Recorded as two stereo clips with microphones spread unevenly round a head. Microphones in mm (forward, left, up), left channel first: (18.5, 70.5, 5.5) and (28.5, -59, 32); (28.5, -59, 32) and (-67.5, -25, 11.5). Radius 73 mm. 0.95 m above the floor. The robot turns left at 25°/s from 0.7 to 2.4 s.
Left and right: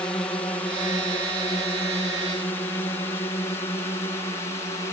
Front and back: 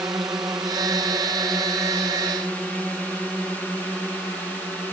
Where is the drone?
120° left; by 4.9 s 60° left.